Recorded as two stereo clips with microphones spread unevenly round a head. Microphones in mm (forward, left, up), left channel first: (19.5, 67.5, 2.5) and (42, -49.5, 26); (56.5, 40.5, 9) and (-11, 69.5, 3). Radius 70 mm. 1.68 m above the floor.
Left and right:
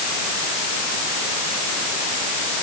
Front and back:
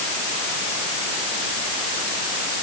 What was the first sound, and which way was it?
Only background noise.